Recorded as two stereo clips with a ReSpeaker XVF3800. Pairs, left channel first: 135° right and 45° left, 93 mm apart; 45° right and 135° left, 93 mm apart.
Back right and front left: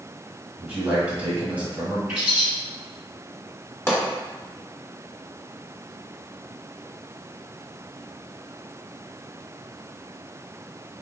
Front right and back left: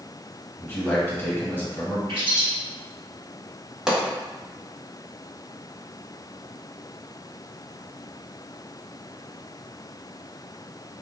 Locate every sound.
0.6 s a man speaking: 10° right, 1.0 m
2.1 s a bird: 120° left, 1.2 m
3.9 s a pop: 150° right, 1.0 m